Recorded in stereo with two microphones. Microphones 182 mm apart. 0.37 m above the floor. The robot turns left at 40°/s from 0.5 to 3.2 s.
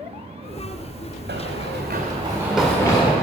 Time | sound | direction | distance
1.3 | running footsteps | 65° right (ahead or behind) | 1.5 m